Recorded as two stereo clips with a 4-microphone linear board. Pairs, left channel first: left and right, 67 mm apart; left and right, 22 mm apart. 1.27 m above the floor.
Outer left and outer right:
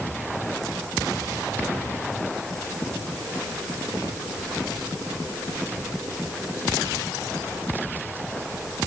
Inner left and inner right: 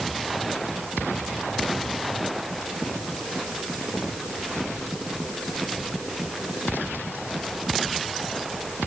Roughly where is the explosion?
No explosion in this recording.